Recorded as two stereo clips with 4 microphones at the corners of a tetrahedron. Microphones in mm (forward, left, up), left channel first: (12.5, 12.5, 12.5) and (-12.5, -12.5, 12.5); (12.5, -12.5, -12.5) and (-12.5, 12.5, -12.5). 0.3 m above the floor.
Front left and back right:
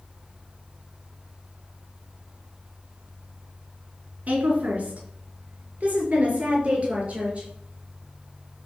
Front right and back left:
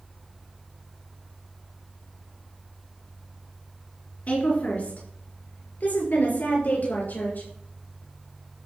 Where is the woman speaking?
90° right, 5 m; by 7.5 s 80° right, 7.5 m.